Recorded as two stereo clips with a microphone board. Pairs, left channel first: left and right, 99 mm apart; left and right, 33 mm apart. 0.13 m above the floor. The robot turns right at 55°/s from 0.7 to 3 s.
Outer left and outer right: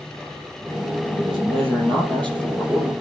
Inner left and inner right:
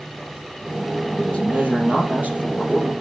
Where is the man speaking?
125° right, 3.5 m; by 2.9 s 30° right, 3.5 m.